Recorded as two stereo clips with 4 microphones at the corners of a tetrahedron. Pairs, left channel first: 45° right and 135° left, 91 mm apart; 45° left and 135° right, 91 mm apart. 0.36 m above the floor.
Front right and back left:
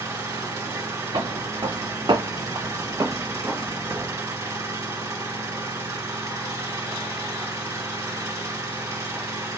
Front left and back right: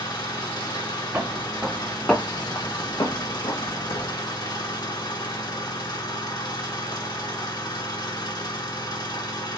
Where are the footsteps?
160° left, 0.9 m; by 4.2 s 60° left, 1.4 m.